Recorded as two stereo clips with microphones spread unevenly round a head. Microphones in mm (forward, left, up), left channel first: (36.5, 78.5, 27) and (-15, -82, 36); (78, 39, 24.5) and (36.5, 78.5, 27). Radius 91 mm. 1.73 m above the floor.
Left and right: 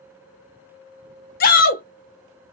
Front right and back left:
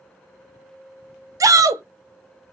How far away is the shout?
About 0.5 m.